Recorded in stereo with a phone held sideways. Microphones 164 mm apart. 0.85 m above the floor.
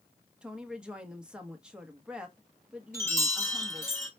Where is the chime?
15° left (ahead or behind), 1.6 m.